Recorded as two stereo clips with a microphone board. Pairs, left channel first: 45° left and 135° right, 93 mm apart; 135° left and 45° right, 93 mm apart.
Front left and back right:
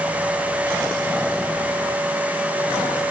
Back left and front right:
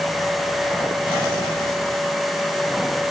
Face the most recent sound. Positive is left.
No sound to turn to.